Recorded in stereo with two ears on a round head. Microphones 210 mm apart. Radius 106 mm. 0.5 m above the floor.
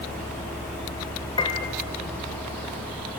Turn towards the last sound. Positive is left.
turn(degrees=25)  # may be behind; listen again after turning